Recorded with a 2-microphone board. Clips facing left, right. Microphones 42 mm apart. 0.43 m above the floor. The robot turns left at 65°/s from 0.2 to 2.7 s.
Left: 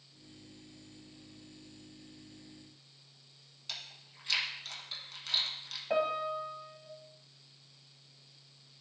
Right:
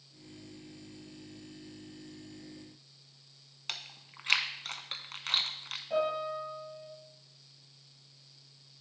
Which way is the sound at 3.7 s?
55° right (ahead or behind).